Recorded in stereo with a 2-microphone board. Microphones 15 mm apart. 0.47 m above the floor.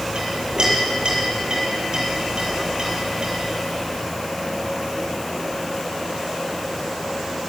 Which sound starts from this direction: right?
A clink, at 0.1 s.